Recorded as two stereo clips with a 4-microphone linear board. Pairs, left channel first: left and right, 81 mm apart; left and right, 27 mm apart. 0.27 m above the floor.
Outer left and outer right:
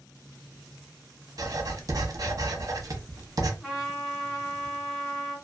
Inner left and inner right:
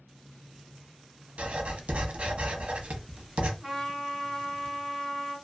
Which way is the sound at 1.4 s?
55° right (ahead or behind).